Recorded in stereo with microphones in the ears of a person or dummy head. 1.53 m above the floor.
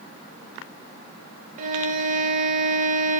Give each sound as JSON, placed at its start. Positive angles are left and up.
{"t": 1.6, "sound": "a violin", "side_deg": -40, "distance_m": 1.1}